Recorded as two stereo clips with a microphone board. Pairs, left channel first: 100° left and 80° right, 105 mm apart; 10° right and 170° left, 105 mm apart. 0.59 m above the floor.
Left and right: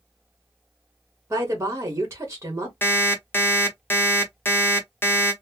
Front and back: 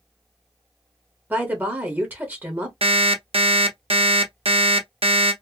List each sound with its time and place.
1.3 s a woman speaking: 125° right, 1.1 m
2.8 s an alarm clock: 165° left, 0.8 m